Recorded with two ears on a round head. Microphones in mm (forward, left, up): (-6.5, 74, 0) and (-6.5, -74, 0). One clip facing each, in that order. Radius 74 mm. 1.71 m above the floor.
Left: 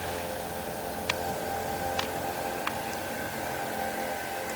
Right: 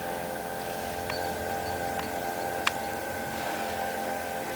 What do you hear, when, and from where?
Only background noise.